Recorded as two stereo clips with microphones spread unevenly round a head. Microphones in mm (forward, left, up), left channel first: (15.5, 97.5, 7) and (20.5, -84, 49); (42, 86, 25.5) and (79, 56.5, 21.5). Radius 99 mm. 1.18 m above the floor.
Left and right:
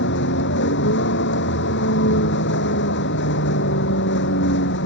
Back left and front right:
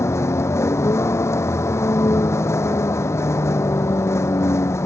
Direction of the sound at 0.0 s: 125° left.